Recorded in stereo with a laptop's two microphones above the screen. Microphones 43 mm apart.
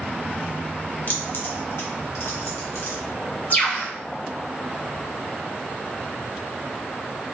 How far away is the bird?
About 1.2 m.